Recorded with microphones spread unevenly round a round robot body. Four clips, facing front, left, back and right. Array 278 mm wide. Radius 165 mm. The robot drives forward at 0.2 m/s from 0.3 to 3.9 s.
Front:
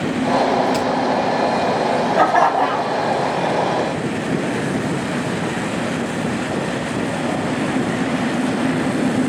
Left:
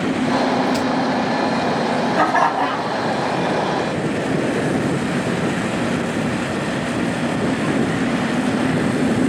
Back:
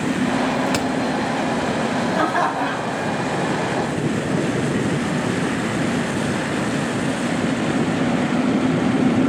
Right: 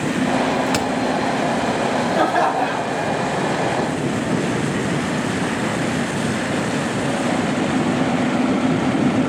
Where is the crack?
110° right, 2 m.